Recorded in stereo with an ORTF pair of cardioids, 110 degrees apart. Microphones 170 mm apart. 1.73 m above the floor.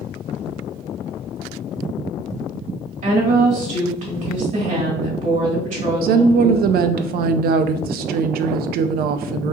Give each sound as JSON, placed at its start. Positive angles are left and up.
{"t": 3.0, "sound": "a woman speaking", "azimuth_deg": -50, "distance_m": 2.5}
{"t": 6.0, "sound": "a woman speaking", "azimuth_deg": -70, "distance_m": 0.5}